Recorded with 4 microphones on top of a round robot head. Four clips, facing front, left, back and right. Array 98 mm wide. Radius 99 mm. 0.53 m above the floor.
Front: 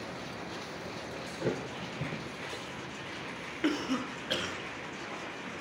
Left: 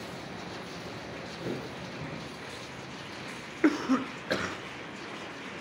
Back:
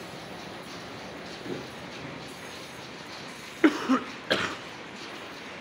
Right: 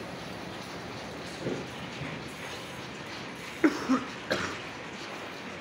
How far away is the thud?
About 3.5 m.